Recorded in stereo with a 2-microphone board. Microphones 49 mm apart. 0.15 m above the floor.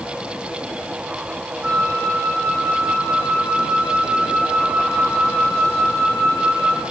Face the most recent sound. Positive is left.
turn(degrees=-30)  # may be behind; listen again after turning